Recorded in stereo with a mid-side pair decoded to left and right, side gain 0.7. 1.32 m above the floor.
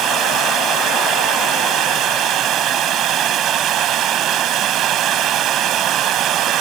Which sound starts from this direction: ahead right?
Running water, at 0.0 s.